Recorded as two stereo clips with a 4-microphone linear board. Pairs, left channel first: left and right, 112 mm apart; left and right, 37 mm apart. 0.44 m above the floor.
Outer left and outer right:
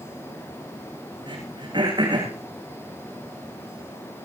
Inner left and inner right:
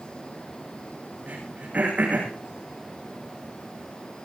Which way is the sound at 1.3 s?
45° right (ahead or behind).